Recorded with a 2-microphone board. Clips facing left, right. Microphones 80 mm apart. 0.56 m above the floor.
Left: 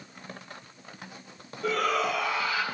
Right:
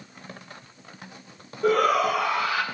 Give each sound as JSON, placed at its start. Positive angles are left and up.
{"t": 1.6, "sound": "a shout", "side_deg": -50, "distance_m": 3.0}